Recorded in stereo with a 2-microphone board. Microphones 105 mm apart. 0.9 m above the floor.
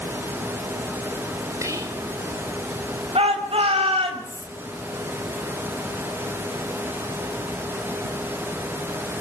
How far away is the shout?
About 5 m.